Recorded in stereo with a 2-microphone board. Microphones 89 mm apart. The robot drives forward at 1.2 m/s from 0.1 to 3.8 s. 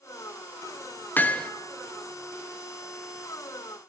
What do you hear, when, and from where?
1.2 s hammering: 20° left (ahead or behind), 0.9 m; by 1.5 s 15° left (ahead or behind), 1.2 m